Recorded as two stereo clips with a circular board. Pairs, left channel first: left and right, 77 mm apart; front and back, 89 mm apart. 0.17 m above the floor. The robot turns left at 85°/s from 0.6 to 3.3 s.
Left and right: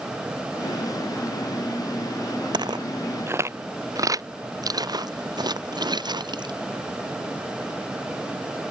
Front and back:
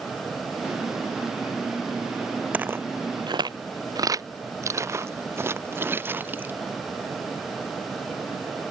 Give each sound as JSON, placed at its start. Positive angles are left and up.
{"t": 2.5, "sound": "footsteps", "azimuth_deg": -105}